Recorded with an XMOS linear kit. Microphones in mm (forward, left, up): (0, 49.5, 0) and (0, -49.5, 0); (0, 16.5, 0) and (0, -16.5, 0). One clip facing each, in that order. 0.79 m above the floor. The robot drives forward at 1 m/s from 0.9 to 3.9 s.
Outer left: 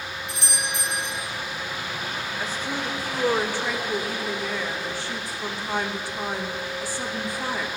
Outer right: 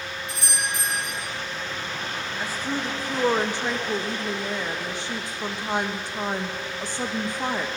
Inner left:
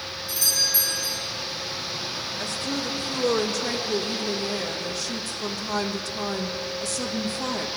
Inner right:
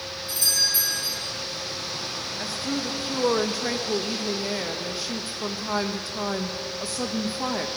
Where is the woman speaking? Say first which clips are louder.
Outer right 2 dB, inner right 1 dB; 10° right (ahead or behind), 1.7 m; by 7.7 s 20° right (ahead or behind), 0.9 m.